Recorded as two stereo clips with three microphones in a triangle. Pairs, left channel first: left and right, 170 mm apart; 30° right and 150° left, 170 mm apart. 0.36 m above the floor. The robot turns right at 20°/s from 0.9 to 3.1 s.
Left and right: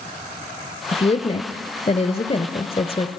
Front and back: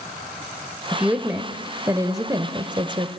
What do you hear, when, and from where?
0.9 s a woman speaking: 70° left, 1.1 m; by 3.1 s 115° left, 1.1 m